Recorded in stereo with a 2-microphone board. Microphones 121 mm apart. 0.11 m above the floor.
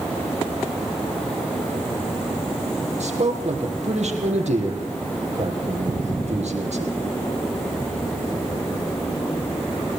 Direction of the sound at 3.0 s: 65° right (ahead or behind).